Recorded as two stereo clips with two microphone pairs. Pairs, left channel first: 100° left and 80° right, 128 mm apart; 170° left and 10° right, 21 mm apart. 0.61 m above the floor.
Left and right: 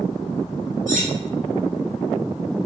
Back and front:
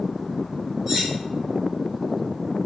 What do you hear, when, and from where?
0.9 s cutlery clinking: 80° right, 1.5 m